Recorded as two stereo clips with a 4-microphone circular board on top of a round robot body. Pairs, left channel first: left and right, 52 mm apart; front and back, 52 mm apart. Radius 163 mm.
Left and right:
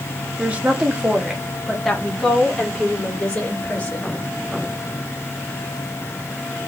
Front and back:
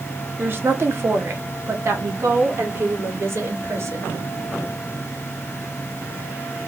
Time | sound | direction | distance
0.4 | a woman speaking | 145° right | 1.5 m